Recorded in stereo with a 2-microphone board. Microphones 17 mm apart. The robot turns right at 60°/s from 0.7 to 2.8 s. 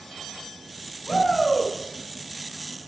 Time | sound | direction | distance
1.1 | a shout | 110° left | 6.5 m